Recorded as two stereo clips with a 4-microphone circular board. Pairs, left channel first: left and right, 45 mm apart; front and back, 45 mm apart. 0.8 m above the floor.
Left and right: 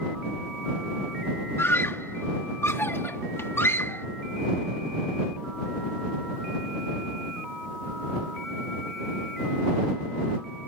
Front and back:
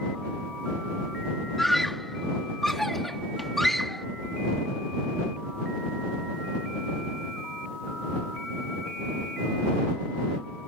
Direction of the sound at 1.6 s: 85° left.